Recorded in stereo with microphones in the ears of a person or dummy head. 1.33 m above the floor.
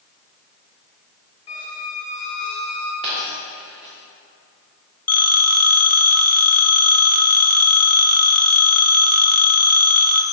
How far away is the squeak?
About 0.7 m.